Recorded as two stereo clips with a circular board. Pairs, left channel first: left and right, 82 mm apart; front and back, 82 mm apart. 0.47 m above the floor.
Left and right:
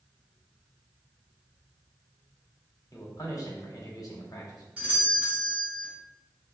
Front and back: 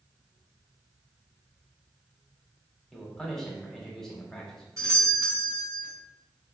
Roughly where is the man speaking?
Left.